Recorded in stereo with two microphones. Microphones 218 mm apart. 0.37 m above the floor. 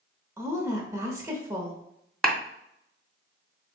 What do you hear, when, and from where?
0.4 s a woman speaking: 15° right (ahead or behind), 0.9 m
2.2 s a clap: centre (ahead or behind), 0.8 m